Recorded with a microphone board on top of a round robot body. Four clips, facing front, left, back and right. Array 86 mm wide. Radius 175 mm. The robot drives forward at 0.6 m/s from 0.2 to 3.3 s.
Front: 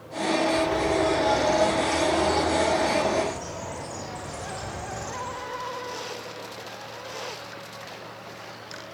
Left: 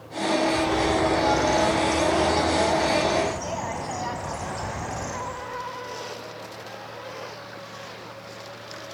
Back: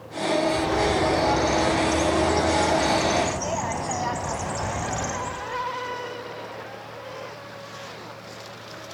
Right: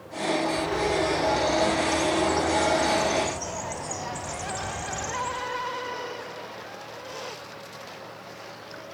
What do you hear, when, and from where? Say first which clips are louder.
0.4 s a bird: left 3 dB, even; 120° left, 1.0 m; by 5.7 s 165° left, 2.5 m